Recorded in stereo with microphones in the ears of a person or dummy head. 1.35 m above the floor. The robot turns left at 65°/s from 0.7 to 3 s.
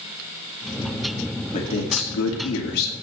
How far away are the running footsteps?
I don't hear running footsteps.